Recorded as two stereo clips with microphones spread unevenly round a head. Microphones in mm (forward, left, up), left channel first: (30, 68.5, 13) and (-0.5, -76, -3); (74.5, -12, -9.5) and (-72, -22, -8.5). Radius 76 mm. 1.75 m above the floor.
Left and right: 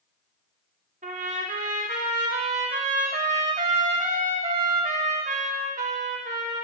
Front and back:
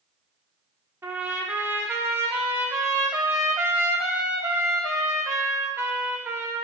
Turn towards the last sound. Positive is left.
turn(degrees=-110)